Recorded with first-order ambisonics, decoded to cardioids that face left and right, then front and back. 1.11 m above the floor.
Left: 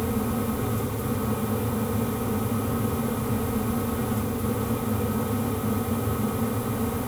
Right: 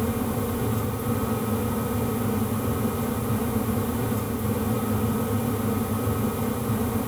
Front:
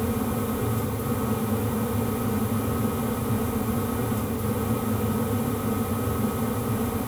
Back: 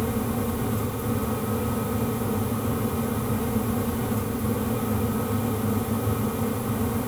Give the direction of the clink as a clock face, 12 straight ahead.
I don't hear a clink.